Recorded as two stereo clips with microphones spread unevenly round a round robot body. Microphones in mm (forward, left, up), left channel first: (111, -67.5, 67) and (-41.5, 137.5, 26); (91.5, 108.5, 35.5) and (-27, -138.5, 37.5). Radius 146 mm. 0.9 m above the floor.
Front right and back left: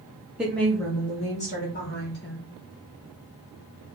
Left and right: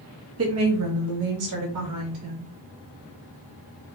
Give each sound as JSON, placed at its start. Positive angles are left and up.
{"t": 0.4, "sound": "a woman speaking", "azimuth_deg": -150, "distance_m": 1.2}